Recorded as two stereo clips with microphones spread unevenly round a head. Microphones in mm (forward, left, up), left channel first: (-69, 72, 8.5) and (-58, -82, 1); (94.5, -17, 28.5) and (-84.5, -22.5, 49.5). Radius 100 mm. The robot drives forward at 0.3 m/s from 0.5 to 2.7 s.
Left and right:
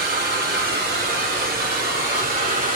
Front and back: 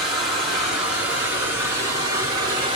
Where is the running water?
95° right, 1.7 m; by 2.8 s 115° right, 1.9 m.